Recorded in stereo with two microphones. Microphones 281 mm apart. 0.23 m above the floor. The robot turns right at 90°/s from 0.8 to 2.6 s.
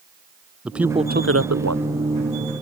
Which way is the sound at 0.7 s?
175° right.